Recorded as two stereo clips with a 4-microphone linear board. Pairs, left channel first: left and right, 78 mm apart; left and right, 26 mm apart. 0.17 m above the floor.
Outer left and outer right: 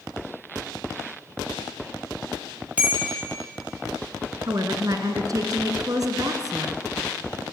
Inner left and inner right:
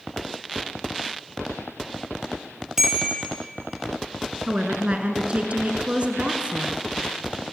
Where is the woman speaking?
50° right (ahead or behind), 2.0 m.